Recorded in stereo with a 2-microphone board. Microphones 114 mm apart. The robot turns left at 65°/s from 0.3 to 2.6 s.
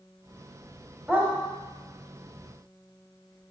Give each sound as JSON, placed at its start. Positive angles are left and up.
{"t": 1.1, "sound": "a dog barking", "side_deg": -10, "distance_m": 1.9}